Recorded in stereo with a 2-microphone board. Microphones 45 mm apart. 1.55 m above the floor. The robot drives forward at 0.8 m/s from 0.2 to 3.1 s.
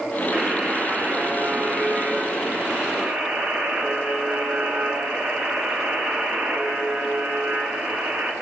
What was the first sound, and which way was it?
A buzzer, 40° right (ahead or behind).